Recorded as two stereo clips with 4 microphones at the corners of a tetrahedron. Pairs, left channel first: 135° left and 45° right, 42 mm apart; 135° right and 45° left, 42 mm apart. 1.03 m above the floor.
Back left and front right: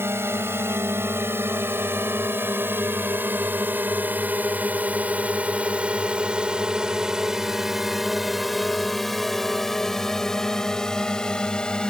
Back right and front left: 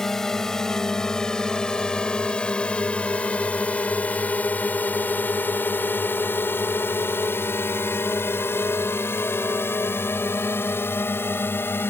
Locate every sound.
0.0 s a drone: 55° right; by 11.9 s 155° right